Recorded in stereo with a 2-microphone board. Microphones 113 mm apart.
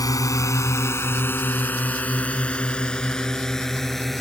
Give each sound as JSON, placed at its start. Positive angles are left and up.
{"t": 0.0, "sound": "a drone", "side_deg": 30}